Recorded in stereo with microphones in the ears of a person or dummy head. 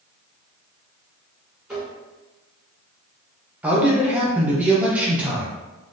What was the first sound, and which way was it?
Tapping, 5° right (ahead or behind).